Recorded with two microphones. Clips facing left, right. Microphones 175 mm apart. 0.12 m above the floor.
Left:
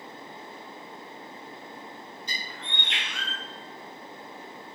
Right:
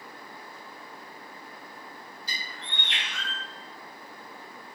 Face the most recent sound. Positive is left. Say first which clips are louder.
# left 2 dB
turn(degrees=-35)  # may be behind; listen again after turning